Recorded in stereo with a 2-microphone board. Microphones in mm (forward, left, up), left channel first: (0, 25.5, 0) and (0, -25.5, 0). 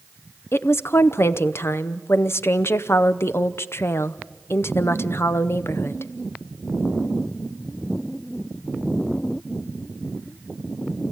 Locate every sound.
0.5 s a woman speaking: 55° left (ahead or behind), 0.8 m